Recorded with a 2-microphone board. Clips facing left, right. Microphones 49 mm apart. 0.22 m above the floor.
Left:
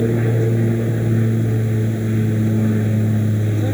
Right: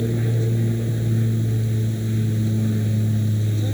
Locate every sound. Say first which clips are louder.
0.0 s an aircraft: left 6 dB; 30° left (ahead or behind)